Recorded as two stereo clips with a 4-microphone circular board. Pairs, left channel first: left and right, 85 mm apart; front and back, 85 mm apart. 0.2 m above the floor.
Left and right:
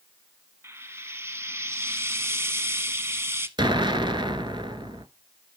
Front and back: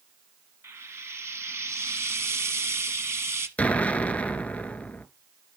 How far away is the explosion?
About 0.6 m.